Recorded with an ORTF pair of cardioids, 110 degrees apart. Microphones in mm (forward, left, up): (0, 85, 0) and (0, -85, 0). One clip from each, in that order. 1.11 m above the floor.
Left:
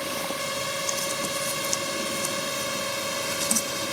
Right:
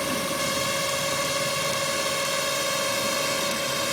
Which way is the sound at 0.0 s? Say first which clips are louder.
Right 3 dB; 15° right.